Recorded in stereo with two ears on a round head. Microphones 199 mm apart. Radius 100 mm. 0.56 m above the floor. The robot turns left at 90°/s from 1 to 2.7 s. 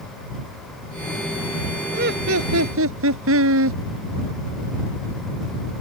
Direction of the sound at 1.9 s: 35° right.